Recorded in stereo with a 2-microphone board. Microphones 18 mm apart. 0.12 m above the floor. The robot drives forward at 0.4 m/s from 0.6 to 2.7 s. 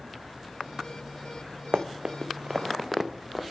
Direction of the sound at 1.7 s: 65° right (ahead or behind).